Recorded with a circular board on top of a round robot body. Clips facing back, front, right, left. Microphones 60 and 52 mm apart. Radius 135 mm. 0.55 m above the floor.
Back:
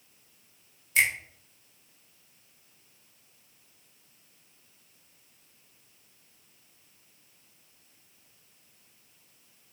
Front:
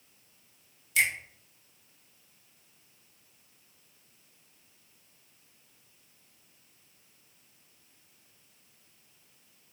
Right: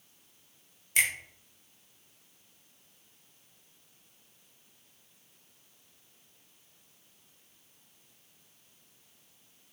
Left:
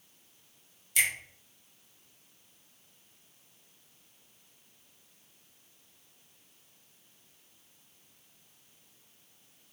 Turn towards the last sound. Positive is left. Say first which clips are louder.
# back 2 dB, right 1 dB
turn(degrees=-135)